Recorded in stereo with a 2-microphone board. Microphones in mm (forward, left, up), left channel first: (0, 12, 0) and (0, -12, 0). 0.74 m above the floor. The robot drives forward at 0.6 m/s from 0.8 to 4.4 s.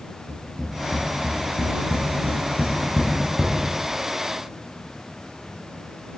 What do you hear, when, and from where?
0.3 s tapping: centre (ahead or behind), 5 m